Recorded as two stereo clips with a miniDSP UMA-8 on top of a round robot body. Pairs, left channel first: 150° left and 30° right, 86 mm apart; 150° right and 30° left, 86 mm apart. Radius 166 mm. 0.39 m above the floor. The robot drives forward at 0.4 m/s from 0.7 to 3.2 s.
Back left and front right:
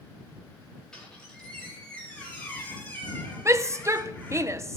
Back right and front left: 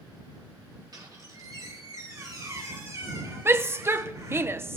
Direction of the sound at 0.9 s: 65° left.